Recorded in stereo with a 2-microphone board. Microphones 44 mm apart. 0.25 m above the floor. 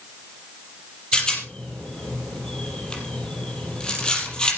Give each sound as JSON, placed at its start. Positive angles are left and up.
{"t": 1.1, "sound": "a rattle", "side_deg": 20, "distance_m": 5.0}